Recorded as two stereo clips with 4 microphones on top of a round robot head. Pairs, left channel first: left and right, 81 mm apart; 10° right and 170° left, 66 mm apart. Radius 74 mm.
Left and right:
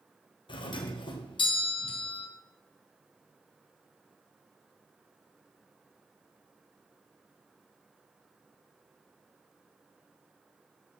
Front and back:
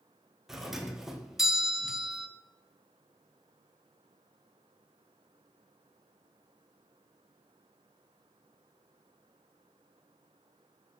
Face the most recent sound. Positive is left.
turn(degrees=85)